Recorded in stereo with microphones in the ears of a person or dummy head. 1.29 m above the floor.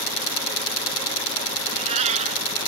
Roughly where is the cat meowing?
Right.